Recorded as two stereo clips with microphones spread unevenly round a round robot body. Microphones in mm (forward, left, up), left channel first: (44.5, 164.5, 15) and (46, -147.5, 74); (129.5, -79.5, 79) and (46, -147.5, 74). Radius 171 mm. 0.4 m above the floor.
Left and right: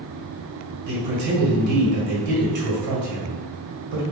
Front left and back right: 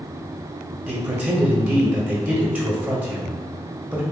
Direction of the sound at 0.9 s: 65° right.